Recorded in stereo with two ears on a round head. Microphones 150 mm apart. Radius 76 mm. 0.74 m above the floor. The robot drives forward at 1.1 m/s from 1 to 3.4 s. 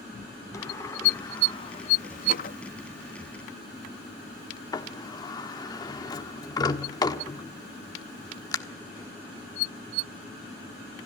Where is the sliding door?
20° left (ahead or behind), 1.6 m; by 8.6 s 25° left (ahead or behind), 1.3 m.